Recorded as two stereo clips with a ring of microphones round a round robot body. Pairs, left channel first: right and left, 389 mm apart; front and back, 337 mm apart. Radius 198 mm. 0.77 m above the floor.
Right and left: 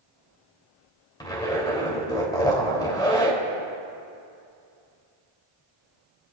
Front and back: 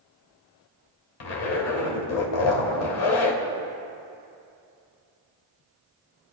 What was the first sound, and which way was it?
A zipper, 10° right.